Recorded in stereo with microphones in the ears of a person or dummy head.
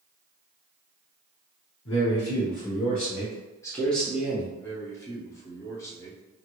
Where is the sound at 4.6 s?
20° left (ahead or behind), 1.0 m.